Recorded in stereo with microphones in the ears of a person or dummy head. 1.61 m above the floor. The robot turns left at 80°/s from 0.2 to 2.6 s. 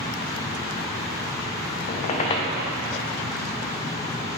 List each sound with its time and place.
1.9 s a squeak: 85° left, 0.7 m; by 2.5 s 30° left, 0.7 m